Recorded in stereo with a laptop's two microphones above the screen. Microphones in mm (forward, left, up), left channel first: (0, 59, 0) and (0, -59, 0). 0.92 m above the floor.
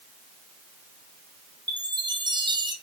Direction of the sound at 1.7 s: 40° right (ahead or behind).